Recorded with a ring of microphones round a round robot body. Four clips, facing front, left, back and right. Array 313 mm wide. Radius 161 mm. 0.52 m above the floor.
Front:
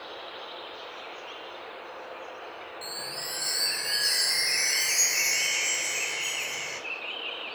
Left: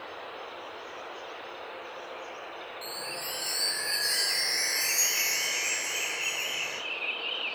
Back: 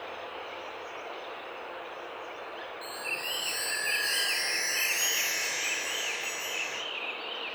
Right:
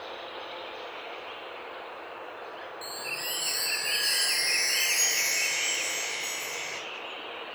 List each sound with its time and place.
2.8 s a chime: 5° right, 1.4 m